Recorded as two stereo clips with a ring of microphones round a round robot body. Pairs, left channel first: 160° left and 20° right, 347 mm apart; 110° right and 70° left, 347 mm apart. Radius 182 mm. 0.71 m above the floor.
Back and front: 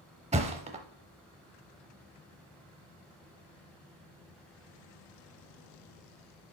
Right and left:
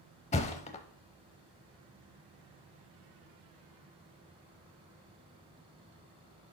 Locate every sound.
0.3 s a thud: 70° right, 0.5 m